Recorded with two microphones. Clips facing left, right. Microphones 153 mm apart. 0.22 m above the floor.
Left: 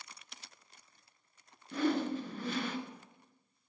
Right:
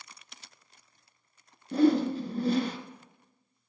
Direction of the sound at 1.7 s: 40° right (ahead or behind).